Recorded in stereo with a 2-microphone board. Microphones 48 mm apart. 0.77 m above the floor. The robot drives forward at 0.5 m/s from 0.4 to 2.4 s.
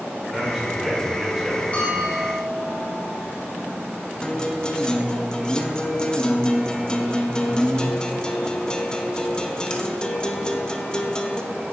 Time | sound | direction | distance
0.3 | a man speaking | 10° right (ahead or behind) | 3 m
1.7 | a bell | 30° left (ahead or behind) | 3 m
4.2 | a guitar | 20° left (ahead or behind) | 0.6 m